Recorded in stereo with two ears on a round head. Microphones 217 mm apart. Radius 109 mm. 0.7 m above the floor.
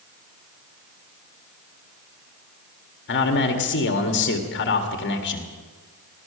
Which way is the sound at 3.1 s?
50° left (ahead or behind).